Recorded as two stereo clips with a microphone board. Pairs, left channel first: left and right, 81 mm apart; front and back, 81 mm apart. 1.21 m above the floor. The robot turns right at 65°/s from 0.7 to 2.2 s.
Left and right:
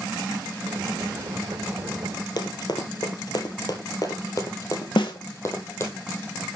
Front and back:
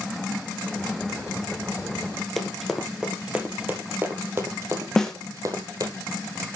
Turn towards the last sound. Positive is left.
turn(degrees=80)